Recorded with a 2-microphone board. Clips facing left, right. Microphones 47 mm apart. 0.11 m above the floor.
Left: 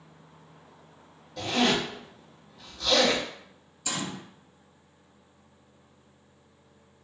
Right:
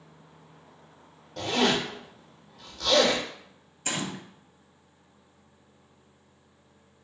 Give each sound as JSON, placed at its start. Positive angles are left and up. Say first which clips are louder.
{"t": 1.4, "sound": "a zipper", "louder": "even", "side_deg": -60, "distance_m": 1.6}
{"t": 3.9, "sound": "a gunshot", "louder": "right 1 dB", "side_deg": -45, "distance_m": 0.5}